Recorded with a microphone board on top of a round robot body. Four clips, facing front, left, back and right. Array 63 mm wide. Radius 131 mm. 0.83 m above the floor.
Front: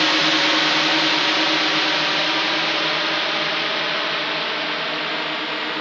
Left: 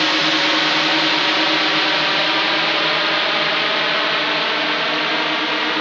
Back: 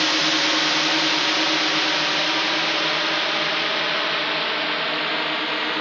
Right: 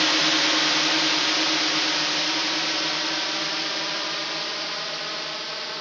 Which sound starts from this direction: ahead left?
A drone, at 0.0 s.